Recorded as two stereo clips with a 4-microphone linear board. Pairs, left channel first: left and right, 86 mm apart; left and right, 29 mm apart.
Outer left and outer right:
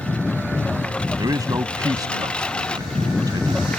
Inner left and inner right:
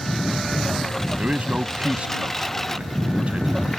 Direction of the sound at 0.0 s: 10° left (ahead or behind).